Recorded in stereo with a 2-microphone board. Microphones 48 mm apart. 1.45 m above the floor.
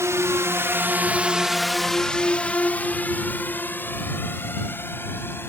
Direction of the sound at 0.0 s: 75° right (ahead or behind).